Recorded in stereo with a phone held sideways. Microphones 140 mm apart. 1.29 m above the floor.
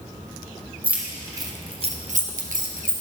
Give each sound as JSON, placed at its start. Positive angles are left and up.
{"t": 0.8, "sound": "keys jangling", "side_deg": -10, "distance_m": 1.1}